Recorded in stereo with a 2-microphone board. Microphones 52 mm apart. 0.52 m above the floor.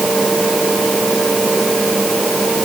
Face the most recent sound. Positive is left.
No sound to turn to.